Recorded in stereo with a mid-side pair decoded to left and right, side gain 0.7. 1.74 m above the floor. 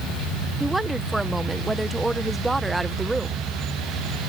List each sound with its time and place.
0.6 s a woman speaking: 10° right